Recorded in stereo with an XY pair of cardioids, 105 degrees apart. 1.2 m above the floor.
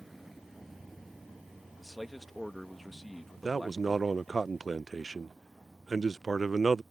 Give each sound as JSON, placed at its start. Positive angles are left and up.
{"t": 0.0, "sound": "a vehicle", "azimuth_deg": -10}
{"t": 1.8, "sound": "a man speaking", "azimuth_deg": 5}
{"t": 3.4, "sound": "a man speaking", "azimuth_deg": -25}